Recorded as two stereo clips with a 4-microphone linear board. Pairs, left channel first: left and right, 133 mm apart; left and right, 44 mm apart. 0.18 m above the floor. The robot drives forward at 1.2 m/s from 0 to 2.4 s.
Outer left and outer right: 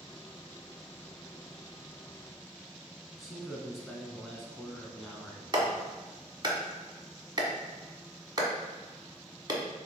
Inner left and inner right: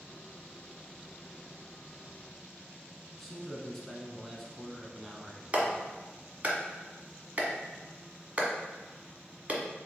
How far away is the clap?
About 1.0 m.